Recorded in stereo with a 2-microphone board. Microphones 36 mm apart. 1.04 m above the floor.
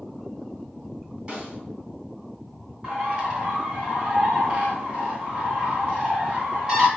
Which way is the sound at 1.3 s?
25° right (ahead or behind).